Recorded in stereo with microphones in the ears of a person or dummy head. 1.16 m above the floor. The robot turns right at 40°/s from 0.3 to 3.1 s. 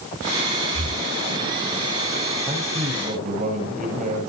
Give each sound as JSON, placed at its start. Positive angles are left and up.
{"t": 0.7, "sound": "breathing", "side_deg": -40, "distance_m": 4.5}
{"t": 2.5, "sound": "a man speaking", "side_deg": -15, "distance_m": 6.0}